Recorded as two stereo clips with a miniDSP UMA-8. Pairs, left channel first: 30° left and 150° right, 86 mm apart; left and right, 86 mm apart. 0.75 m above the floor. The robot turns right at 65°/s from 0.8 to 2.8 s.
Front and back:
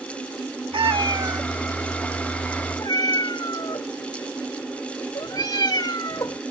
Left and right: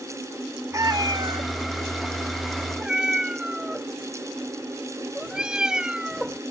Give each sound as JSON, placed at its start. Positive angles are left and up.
{"t": 0.7, "sound": "a cat meowing", "azimuth_deg": -140}